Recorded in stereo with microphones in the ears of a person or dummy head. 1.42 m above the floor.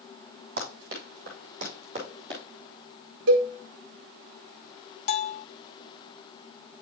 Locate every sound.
0.6 s running footsteps: 40° right (ahead or behind), 2 m; by 2.4 s 25° right (ahead or behind), 2.5 m
3.3 s a cowbell: 65° right (ahead or behind), 1.2 m
5.1 s a bell: 35° left (ahead or behind), 0.8 m